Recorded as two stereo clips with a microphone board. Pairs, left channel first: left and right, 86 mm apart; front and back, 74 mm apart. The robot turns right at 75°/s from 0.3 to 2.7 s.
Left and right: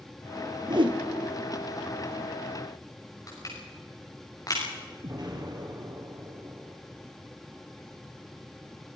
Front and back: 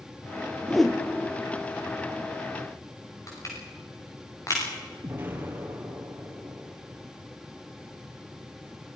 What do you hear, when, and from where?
0.7 s a whoosh: 100° right, 1.4 m; by 1.0 s 75° right, 1.4 m
3.3 s crushing: 45° left, 7.5 m
5.0 s an explosion: 120° right, 3 m